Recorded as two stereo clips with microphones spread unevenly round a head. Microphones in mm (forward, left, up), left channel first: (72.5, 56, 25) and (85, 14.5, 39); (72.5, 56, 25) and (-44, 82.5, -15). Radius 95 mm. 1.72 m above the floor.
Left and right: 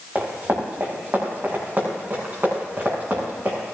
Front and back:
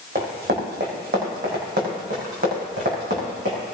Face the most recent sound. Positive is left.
turn(degrees=-150)